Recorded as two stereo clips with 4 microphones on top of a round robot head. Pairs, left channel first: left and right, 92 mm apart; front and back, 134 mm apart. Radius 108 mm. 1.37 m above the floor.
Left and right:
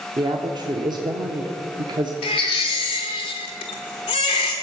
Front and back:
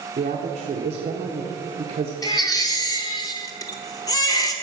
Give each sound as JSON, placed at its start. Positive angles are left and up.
{"t": 0.2, "sound": "a woman speaking", "azimuth_deg": -130, "distance_m": 0.8}
{"t": 2.2, "sound": "a baby crying", "azimuth_deg": 55, "distance_m": 0.8}